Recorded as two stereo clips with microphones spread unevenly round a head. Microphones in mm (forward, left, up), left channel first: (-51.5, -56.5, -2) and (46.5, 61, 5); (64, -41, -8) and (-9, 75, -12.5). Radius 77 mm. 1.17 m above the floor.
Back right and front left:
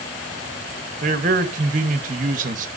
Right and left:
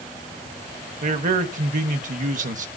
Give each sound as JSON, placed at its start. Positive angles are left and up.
{"t": 1.0, "sound": "a man speaking", "azimuth_deg": 90, "distance_m": 1.3}